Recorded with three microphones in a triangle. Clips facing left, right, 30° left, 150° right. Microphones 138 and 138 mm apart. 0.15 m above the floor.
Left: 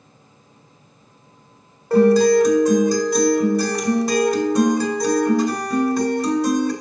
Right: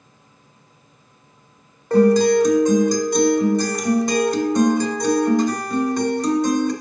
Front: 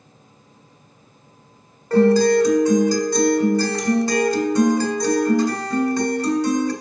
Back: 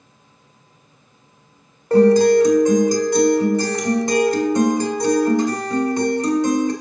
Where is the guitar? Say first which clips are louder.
Left 1 dB, back 3 dB; 170° left, 1.2 m.